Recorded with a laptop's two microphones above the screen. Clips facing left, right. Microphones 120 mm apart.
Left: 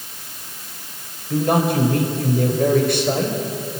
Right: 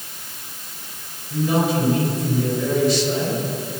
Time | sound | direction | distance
1.3 | a man speaking | 50° left (ahead or behind) | 4.5 m